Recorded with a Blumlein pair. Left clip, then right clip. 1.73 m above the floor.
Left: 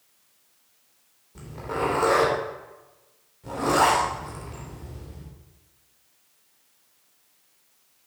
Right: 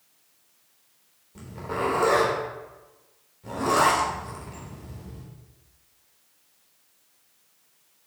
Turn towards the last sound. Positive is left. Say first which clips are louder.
# left 1 dB
turn(degrees=5)